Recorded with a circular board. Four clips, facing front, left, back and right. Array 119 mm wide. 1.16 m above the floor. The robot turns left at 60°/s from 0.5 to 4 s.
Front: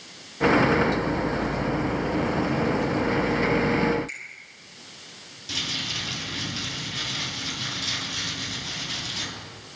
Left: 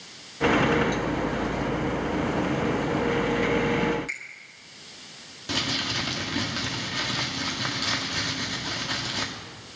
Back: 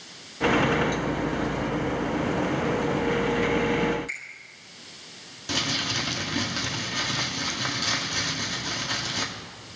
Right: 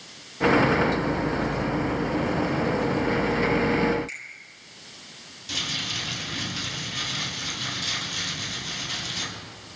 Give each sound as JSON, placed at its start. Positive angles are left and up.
{"t": 4.1, "sound": "a finger snap", "azimuth_deg": 110, "distance_m": 4.5}
{"t": 5.5, "sound": "crumpling", "azimuth_deg": 130, "distance_m": 2.0}